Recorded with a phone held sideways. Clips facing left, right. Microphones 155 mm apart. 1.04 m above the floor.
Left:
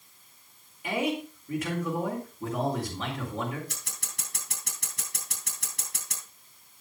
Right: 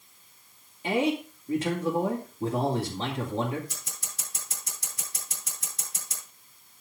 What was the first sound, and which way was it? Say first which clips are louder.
A man speaking: right 3 dB; 25° right (ahead or behind).